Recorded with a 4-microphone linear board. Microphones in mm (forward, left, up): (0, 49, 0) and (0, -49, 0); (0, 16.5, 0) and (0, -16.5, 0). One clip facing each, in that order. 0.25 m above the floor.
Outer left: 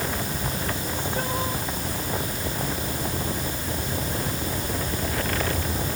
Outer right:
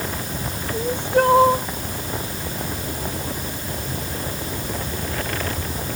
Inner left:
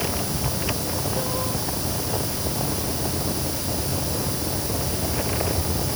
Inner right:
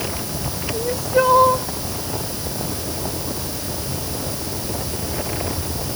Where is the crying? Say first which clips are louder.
Outer right 9 dB, inner right 8 dB; 65° right (ahead or behind).